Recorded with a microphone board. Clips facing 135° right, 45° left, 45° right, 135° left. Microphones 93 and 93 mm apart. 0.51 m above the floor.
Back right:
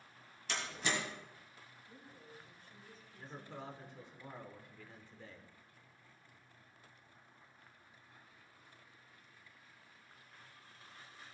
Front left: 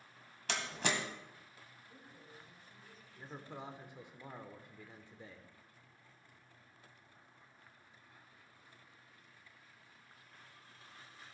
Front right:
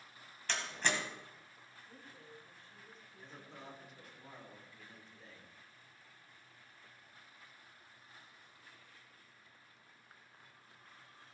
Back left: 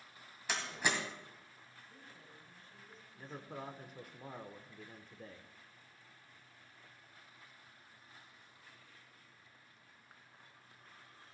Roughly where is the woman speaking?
Ahead right.